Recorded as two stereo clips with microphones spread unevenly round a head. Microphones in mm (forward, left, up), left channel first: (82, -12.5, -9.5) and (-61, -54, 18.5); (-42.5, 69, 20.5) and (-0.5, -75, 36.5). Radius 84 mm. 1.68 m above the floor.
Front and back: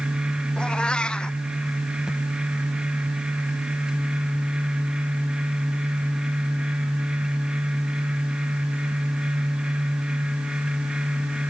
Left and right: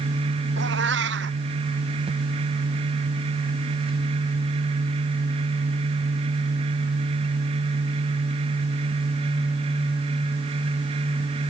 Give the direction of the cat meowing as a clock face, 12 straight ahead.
2 o'clock.